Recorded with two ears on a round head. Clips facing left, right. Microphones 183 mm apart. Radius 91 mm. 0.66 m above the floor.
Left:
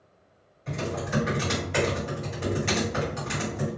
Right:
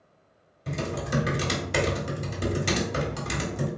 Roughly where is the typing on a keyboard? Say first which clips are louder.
Even; right.